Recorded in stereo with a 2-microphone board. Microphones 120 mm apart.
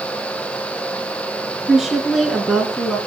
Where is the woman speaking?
5° right (ahead or behind), 3.5 m; by 3.0 s centre (ahead or behind), 2 m.